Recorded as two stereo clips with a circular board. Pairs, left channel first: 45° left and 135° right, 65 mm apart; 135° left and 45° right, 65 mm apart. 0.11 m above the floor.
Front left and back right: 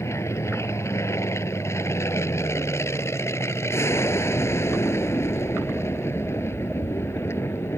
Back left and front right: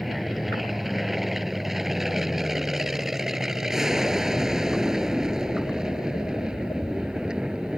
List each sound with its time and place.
0.0 s an aircraft: 40° left; by 7.8 s 30° left